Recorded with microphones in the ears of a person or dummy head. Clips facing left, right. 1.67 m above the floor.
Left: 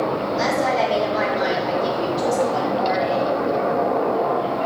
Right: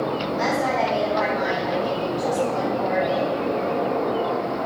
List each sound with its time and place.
0.4 s a woman speaking: 50° left (ahead or behind), 3 m